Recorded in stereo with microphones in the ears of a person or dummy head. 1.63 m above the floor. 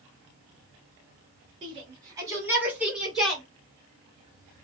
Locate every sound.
1.6 s a shout: 30° right (ahead or behind), 2.5 m; by 3.4 s 5° left (ahead or behind), 2.5 m